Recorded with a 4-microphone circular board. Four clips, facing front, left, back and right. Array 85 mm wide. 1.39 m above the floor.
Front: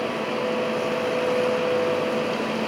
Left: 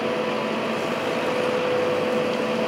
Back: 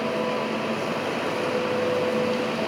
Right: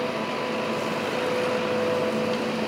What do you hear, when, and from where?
Only background noise.